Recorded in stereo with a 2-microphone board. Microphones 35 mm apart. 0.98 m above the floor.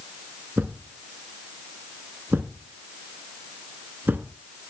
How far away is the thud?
About 2 m.